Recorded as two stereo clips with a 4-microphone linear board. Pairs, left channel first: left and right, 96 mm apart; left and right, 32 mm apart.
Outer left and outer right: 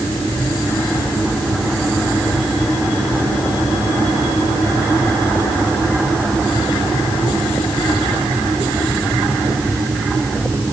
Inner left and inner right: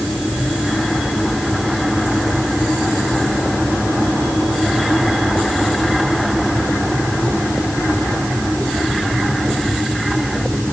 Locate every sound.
Only background noise.